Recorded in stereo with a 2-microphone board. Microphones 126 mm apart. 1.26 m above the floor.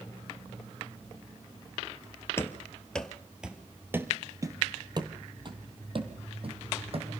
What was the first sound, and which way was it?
Running footsteps, 20° left (ahead or behind).